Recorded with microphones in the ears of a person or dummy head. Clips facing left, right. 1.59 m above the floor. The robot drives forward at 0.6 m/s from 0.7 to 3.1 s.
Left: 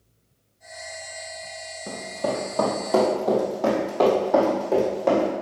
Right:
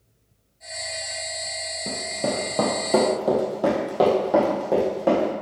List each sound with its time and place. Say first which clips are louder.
1.9 s running footsteps: even; 35° right (ahead or behind), 2.0 m; by 5.3 s 15° right (ahead or behind), 4.5 m